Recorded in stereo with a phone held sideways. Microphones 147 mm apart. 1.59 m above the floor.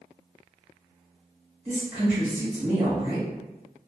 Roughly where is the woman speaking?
Right.